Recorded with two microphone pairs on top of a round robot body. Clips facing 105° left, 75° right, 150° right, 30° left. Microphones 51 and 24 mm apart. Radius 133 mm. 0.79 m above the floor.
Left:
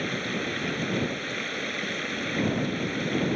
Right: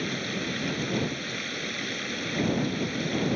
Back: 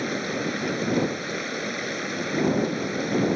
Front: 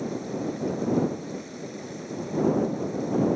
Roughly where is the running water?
Behind.